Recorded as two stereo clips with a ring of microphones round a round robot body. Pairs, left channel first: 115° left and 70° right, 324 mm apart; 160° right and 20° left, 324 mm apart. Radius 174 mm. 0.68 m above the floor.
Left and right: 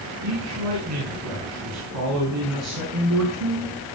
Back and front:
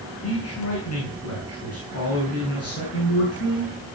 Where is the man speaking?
110° right, 7 m.